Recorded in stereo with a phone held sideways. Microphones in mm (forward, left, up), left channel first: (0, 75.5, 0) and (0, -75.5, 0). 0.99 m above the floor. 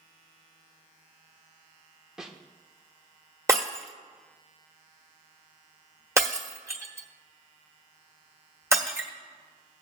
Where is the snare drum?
5° right (ahead or behind), 1.0 m.